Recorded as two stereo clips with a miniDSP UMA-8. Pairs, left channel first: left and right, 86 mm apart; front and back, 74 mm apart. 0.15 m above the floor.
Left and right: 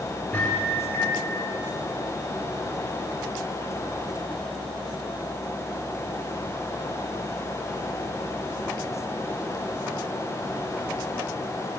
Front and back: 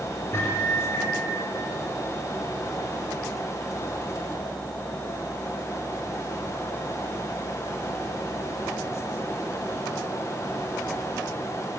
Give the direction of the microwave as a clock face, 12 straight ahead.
11 o'clock.